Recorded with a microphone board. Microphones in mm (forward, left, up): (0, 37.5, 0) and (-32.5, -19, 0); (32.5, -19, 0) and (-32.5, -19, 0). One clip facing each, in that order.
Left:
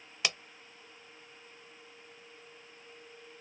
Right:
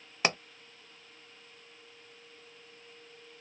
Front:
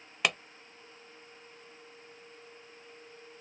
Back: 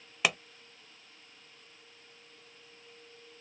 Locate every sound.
0.2 s a pop: 95° right